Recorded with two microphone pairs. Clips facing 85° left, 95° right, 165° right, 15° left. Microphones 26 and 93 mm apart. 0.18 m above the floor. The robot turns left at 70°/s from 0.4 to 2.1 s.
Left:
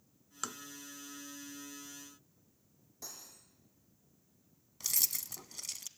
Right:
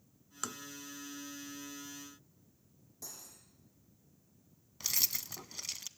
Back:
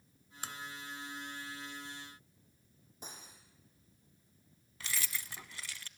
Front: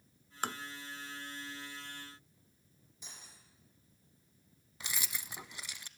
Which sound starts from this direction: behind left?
Cutlery clinking, at 3.0 s.